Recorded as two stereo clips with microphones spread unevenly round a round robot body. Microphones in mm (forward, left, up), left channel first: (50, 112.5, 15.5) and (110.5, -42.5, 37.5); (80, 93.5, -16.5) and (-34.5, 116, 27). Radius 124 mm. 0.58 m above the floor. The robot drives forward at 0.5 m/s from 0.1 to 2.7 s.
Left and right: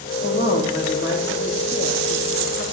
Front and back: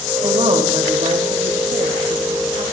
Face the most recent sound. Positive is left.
turn(degrees=145)